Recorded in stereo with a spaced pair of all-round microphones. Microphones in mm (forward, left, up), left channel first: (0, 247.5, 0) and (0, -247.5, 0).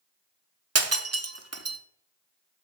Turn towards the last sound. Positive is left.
turn(degrees=-30)  # may be behind; listen again after turning